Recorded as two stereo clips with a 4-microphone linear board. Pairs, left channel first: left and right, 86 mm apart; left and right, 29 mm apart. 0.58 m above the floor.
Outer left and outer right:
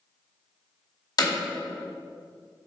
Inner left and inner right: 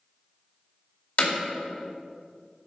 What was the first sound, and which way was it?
Hammering, 55° left (ahead or behind).